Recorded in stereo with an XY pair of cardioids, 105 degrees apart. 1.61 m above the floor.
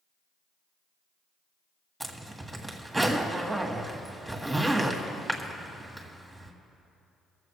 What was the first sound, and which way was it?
A zipper, 10° right.